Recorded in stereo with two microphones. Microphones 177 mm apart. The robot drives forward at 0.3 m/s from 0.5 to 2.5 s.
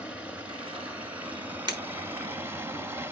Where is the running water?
10° right (ahead or behind), 0.9 m; by 3.1 s 15° right (ahead or behind), 0.5 m.